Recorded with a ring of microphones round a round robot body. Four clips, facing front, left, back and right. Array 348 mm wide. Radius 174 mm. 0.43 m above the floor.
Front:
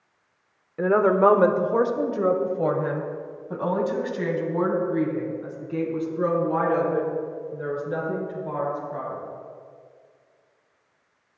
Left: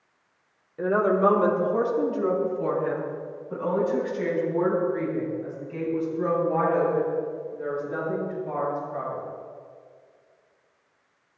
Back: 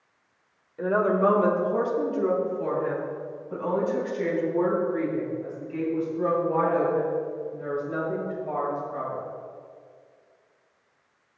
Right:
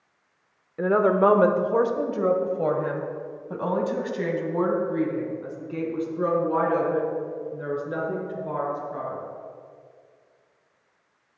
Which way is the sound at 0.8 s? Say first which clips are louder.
Right 2 dB, front 4 dB; 25° right.